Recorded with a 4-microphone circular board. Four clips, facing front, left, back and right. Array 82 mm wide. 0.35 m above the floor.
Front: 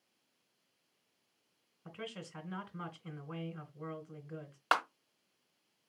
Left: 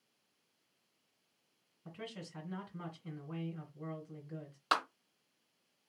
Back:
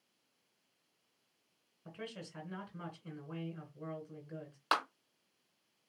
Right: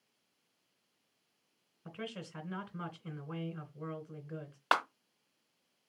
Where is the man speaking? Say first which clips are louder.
Right 3 dB, front 1 dB; 50° right, 1.5 m.